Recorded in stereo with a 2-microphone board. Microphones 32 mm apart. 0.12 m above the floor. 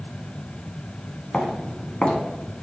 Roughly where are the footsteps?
Left.